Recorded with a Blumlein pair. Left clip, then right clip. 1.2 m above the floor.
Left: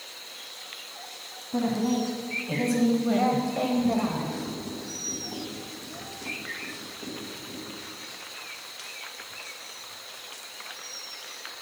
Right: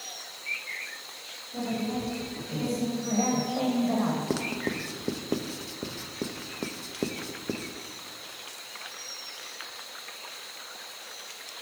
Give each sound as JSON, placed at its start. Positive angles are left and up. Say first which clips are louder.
{"t": 1.5, "sound": "a woman speaking", "louder": "left 5 dB", "azimuth_deg": 50, "distance_m": 2.0}
{"t": 4.3, "sound": "writing", "louder": "right 5 dB", "azimuth_deg": -40, "distance_m": 0.6}